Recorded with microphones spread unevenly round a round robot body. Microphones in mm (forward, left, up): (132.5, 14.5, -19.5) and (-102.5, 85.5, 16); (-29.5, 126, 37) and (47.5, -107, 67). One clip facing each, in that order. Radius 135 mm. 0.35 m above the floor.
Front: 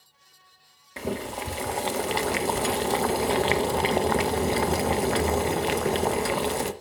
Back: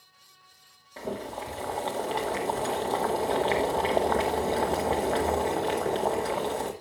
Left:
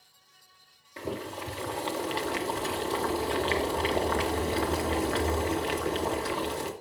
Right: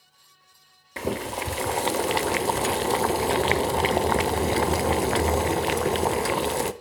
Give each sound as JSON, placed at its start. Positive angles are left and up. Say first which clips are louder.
{"t": 1.0, "sound": "boiling", "louder": "front 4 dB, right 6 dB", "azimuth_deg": -60, "distance_m": 0.8}